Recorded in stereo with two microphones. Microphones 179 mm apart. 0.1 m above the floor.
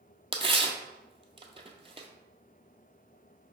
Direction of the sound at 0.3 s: 30° right (ahead or behind).